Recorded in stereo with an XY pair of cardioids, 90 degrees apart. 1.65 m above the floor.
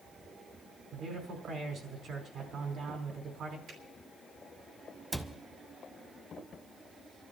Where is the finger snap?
70° right, 4.5 m.